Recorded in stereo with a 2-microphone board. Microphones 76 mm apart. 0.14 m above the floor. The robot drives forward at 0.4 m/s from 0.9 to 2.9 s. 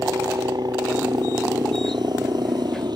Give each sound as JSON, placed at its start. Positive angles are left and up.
{"t": 0.0, "sound": "a helicopter", "side_deg": -60}